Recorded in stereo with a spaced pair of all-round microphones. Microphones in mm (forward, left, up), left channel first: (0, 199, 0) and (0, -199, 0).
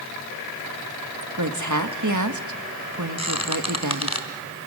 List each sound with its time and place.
1.4 s a woman speaking: 45° right (ahead or behind), 1.4 m
3.2 s a squeak: 40° left (ahead or behind), 2.5 m